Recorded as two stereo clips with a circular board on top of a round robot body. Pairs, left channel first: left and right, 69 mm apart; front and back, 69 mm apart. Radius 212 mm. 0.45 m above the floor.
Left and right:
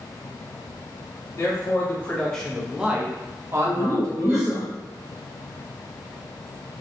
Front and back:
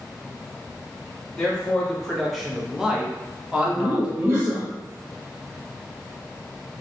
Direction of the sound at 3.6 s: 160° right.